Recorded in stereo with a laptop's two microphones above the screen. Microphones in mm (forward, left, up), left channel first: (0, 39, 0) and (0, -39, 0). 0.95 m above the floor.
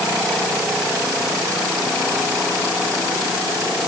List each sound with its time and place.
Only background noise.